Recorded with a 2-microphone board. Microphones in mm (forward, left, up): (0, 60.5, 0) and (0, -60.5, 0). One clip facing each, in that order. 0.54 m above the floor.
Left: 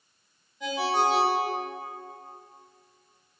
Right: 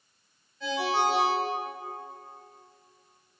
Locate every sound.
0.6 s a ringtone: 15° left (ahead or behind), 0.6 m